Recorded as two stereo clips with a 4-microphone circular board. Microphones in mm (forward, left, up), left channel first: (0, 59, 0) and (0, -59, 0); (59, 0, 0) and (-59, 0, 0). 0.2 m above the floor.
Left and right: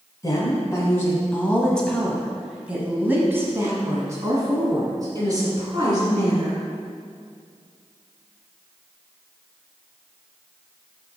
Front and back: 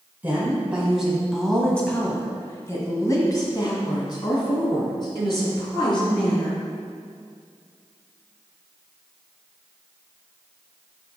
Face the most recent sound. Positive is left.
turn(degrees=-40)